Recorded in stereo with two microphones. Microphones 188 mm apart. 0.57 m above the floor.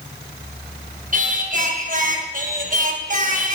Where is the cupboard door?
I don't hear a cupboard door.